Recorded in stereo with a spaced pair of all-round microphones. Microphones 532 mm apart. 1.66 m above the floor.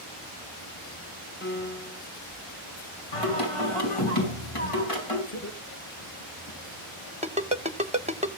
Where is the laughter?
30° left (ahead or behind), 2.5 m.